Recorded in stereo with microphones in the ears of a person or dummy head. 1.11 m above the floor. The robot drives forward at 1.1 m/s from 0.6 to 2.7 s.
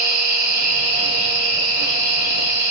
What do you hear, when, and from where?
0.0 s an insect: 45° right (ahead or behind), 1.0 m; by 2.7 s 15° right (ahead or behind), 3 m